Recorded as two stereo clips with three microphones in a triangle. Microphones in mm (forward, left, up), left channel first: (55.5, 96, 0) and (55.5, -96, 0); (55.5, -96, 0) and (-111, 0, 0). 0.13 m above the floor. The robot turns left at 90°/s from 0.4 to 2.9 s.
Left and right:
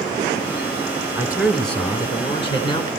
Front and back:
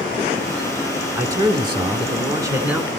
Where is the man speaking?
145° right, 1.2 m; by 2.9 s 60° left, 1.2 m.